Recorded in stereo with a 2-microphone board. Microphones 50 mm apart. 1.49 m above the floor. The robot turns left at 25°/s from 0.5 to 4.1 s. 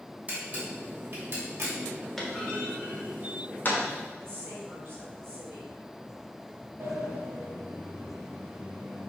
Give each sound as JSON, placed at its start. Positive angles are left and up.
{"t": 0.3, "sound": "a camera shutter", "side_deg": -30, "distance_m": 2.5}
{"t": 2.2, "sound": "a clunk", "side_deg": 10, "distance_m": 1.5}
{"t": 4.2, "sound": "a woman speaking", "side_deg": -50, "distance_m": 2.5}
{"t": 6.8, "sound": "a sliding door", "side_deg": -40, "distance_m": 2.0}